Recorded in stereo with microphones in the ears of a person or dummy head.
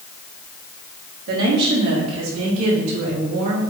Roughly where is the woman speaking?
Right.